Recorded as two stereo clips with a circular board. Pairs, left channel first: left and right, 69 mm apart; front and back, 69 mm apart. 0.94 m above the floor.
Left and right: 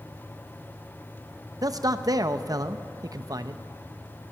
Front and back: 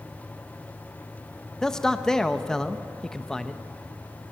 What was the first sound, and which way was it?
A man speaking, 80° right.